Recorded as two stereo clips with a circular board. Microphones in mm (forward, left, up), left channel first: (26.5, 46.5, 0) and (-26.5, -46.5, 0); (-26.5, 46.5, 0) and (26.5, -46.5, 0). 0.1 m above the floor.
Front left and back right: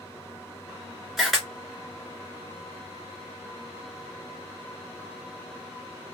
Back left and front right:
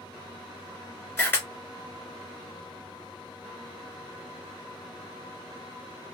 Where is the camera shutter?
150° left, 1.6 m.